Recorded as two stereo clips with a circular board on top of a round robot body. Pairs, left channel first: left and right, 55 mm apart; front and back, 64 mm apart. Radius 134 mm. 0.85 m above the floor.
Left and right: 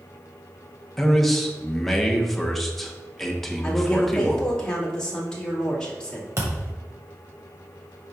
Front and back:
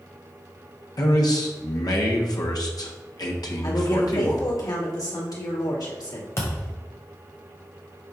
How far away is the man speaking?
About 1.2 m.